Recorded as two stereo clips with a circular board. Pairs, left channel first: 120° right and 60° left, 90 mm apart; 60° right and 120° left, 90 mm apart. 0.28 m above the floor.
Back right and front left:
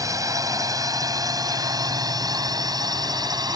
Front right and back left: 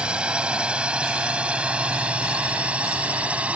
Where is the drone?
45° left; by 3.6 s 50° left.